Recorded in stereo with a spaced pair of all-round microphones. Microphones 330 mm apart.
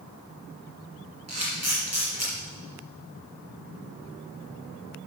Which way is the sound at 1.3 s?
50° right (ahead or behind).